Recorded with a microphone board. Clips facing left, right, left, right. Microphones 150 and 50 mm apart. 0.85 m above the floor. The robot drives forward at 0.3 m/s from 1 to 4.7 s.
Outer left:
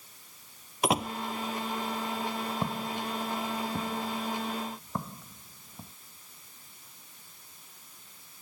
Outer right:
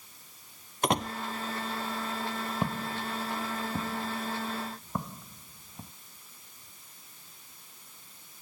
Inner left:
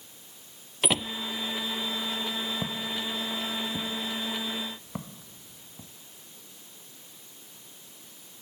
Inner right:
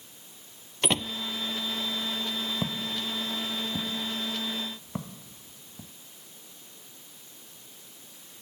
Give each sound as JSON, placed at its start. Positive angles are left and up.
{"t": 0.8, "sound": "a door slam", "side_deg": 5}
{"t": 2.6, "sound": "footsteps", "side_deg": -5}